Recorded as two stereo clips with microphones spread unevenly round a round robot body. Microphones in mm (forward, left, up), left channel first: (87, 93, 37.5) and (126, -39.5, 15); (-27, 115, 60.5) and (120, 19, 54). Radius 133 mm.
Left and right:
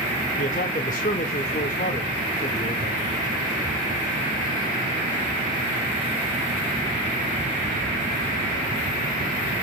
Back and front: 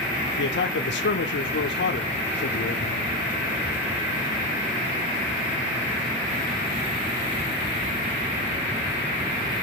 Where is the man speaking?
155° left, 1.6 m.